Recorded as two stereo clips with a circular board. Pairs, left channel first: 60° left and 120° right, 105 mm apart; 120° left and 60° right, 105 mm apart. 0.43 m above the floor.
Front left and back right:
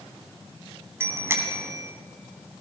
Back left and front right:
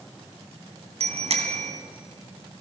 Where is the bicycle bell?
55° right, 2.5 m.